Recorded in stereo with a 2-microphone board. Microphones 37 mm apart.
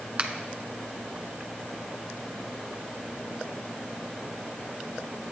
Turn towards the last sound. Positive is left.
turn(degrees=-30)  # may be behind; listen again after turning